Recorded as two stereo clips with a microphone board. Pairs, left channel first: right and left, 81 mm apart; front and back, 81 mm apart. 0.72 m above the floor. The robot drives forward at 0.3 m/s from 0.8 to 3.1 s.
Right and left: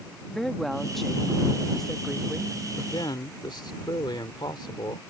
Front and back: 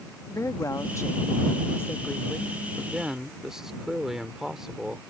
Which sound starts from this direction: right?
A man speaking, at 2.8 s.